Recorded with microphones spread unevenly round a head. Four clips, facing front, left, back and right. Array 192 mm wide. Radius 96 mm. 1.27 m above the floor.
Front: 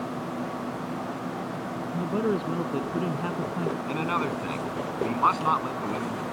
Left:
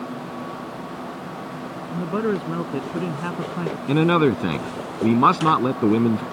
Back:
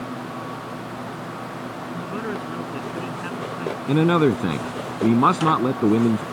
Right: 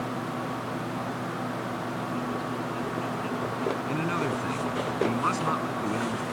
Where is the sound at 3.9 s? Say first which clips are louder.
Left 11 dB, back 15 dB; 140° left.